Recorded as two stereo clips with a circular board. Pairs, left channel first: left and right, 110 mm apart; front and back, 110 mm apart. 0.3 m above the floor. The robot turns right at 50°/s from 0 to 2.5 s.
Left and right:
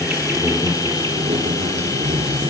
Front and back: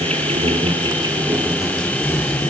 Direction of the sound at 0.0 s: 175° right.